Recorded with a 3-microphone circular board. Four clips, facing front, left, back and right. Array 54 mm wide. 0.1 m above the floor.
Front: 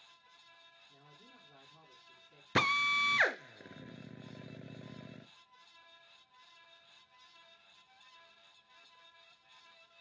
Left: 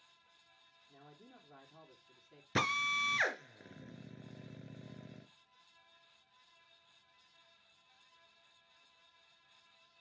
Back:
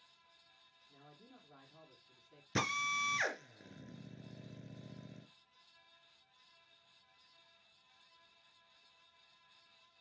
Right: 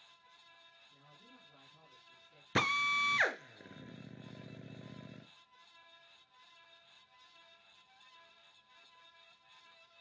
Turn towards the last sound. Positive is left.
turn(degrees=-15)